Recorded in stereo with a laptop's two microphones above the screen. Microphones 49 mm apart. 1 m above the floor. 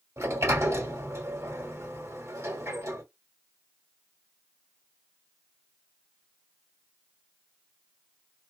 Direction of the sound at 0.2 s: 70° right (ahead or behind).